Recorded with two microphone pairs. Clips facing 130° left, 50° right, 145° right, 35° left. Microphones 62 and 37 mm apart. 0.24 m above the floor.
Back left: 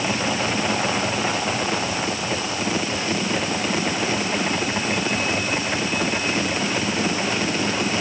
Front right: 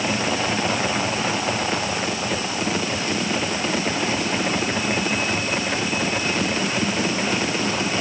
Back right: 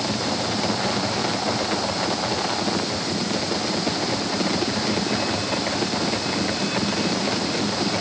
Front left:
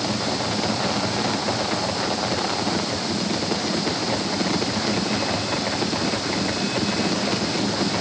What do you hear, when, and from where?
Only background noise.